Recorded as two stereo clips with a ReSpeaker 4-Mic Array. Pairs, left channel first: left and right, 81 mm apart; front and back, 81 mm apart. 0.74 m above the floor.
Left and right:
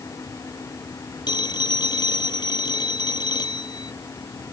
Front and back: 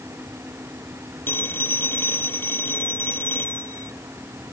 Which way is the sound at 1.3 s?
65° left.